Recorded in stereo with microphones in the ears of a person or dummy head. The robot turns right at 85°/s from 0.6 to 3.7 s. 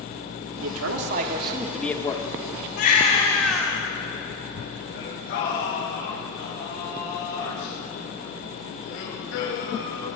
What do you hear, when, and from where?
0.6 s a man speaking: 105° right, 1.9 m; by 2.3 s 40° left, 1.9 m
2.8 s a baby crying: 110° left, 2.5 m; by 3.8 s 170° right, 2.5 m
4.9 s singing: 70° left (ahead or behind), 7.5 m